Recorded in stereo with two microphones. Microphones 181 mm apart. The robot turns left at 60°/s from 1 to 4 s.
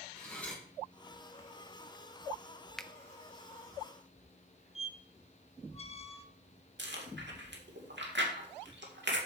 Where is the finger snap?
5° left (ahead or behind), 0.6 m.